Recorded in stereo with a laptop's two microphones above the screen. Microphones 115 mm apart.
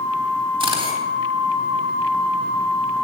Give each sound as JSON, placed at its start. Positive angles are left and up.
{"t": 0.6, "sound": "a camera shutter", "side_deg": -45, "distance_m": 3.5}